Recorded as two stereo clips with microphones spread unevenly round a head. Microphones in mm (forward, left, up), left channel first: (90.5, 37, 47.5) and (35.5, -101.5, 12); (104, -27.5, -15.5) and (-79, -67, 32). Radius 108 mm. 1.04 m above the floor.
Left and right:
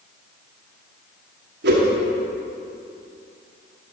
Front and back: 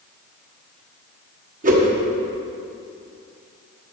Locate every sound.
1.6 s a whoosh: 120° right, 1.5 m